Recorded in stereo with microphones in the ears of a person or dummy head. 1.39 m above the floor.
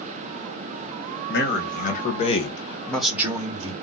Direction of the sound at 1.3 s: 55° left (ahead or behind).